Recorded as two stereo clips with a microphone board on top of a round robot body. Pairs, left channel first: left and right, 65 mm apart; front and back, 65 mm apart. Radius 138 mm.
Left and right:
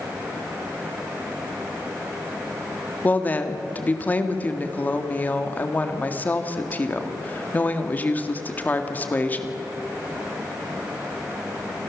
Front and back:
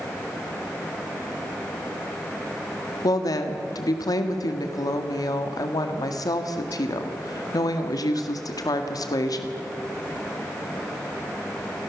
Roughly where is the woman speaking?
Ahead left.